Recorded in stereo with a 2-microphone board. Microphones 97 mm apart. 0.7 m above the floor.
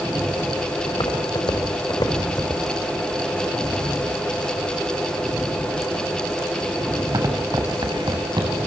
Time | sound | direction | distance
0.9 | footsteps | 60° left (ahead or behind) | 5 m